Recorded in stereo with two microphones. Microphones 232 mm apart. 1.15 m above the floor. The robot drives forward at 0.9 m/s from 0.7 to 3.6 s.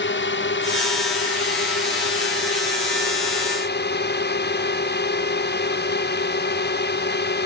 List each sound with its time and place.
0.0 s a drone: 60° left (ahead or behind); by 7.5 s 50° left (ahead or behind)